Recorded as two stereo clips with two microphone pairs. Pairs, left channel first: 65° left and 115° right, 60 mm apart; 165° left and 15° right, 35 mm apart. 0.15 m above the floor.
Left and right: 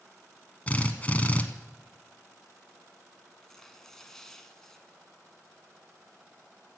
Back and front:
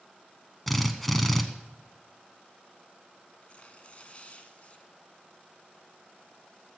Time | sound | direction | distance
0.7 | a drill | 80° left | 1.0 m
3.4 | tearing paper | 150° left | 1.0 m